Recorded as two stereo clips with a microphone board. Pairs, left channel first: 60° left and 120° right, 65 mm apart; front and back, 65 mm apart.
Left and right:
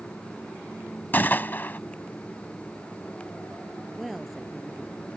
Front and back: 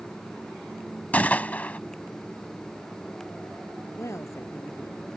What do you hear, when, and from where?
1.1 s a gunshot: 40° left
4.0 s a woman speaking: 30° right